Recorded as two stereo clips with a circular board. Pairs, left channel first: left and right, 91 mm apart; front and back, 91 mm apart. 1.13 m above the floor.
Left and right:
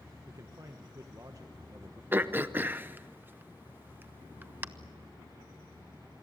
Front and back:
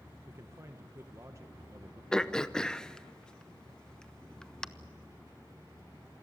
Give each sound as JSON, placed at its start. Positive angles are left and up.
{"t": 0.2, "sound": "a man speaking", "azimuth_deg": -130, "distance_m": 1.1}
{"t": 2.1, "sound": "throat clearing", "azimuth_deg": -70, "distance_m": 0.7}